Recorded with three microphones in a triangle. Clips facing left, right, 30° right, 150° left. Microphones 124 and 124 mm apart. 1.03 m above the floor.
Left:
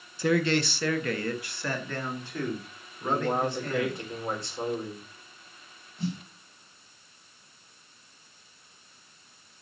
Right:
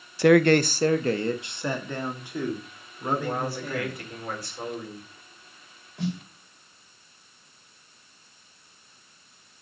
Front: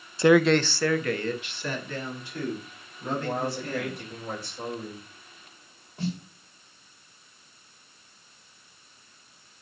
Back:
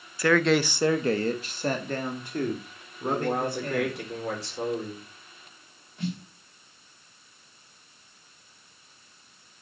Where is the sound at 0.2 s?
95° right, 0.5 m; by 4.0 s 170° right, 3.5 m.